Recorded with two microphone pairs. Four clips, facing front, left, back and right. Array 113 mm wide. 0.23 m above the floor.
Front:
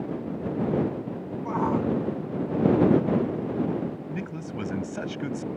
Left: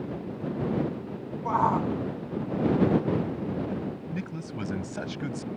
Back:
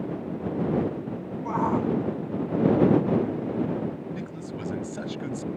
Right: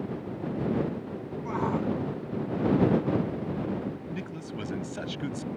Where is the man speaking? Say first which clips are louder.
Left 1 dB, front 1 dB; 15° left.